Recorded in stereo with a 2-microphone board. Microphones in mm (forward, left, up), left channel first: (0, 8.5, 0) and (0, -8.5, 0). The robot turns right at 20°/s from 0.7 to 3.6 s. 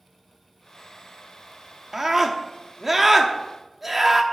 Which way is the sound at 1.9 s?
20° right (ahead or behind).